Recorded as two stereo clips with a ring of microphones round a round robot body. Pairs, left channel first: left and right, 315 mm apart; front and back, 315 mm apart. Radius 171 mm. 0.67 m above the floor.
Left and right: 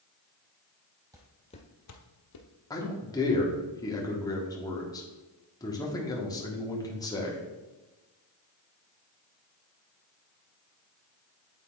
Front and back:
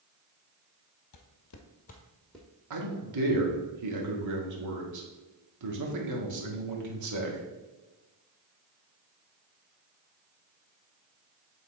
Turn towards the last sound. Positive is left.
turn(degrees=165)